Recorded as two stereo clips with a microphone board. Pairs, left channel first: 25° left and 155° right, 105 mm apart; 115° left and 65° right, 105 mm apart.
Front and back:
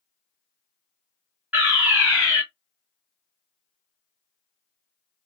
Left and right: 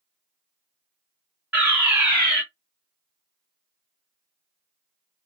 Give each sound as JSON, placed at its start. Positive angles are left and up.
{"t": 1.5, "sound": "a fire alarm", "azimuth_deg": -110, "distance_m": 2.5}